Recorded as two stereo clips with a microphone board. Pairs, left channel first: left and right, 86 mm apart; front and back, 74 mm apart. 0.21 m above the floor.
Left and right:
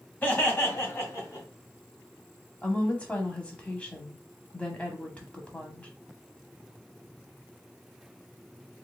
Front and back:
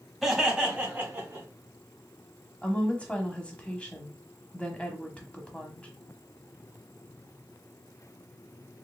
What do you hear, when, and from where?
0.2 s laughter: 80° left, 1.5 m; by 1.5 s 130° left, 2.5 m
2.6 s a woman speaking: 40° left, 1.0 m